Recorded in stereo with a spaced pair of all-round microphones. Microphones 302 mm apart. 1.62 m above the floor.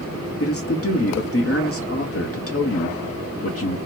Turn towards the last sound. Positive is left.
turn(degrees=45)  # may be behind; listen again after turning